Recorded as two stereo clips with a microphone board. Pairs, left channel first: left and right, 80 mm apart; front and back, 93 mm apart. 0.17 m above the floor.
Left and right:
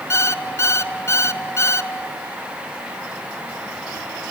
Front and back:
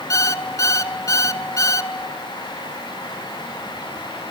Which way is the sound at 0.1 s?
45° left.